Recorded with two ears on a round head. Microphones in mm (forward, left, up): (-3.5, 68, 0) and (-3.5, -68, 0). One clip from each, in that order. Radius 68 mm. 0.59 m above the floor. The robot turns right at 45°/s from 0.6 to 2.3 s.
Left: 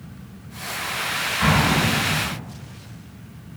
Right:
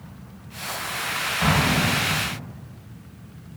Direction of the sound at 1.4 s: 70° right.